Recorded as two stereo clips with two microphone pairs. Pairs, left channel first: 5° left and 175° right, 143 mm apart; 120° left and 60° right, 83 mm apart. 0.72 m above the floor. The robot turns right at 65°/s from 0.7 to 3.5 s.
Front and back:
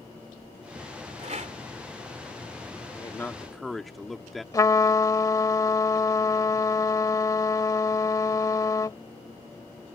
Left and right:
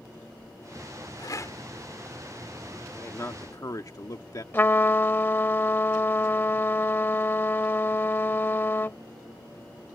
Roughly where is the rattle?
Behind left.